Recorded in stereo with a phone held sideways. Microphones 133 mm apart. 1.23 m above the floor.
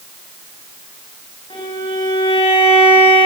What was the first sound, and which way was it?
A violin, 45° left (ahead or behind).